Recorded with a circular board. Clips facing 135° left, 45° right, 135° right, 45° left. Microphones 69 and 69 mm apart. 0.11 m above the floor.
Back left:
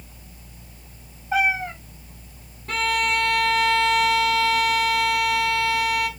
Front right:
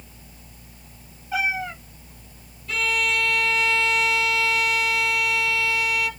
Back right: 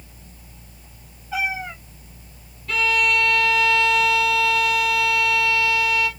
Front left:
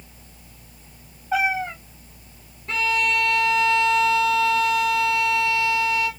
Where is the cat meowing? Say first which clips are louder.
Back left 3 dB, front left 4 dB; 85° left, 6 m.